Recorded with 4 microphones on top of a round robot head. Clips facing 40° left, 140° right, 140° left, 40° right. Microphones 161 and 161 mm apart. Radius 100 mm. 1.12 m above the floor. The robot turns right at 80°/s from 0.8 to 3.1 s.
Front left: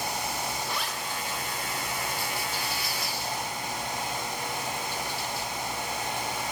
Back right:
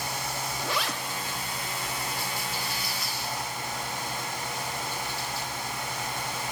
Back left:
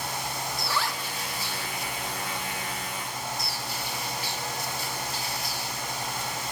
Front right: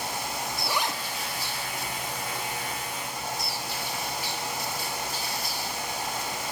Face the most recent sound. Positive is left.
turn(degrees=65)